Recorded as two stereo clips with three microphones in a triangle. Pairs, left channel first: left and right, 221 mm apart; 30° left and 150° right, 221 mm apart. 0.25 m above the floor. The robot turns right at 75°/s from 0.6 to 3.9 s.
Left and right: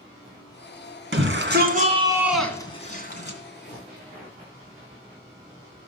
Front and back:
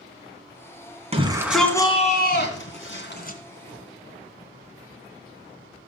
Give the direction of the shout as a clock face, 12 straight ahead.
3 o'clock.